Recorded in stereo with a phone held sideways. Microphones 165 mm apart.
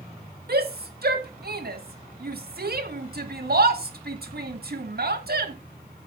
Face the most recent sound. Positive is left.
turn(degrees=-70)  # may be behind; listen again after turning